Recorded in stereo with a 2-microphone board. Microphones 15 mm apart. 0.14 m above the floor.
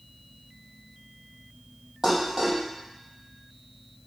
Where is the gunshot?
I don't hear a gunshot.